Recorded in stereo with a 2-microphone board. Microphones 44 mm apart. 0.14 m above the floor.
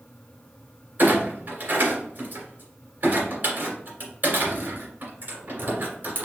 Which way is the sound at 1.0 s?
40° right (ahead or behind).